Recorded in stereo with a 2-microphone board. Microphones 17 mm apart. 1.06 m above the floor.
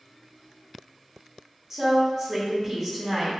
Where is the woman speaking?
25° right (ahead or behind), 1.2 m.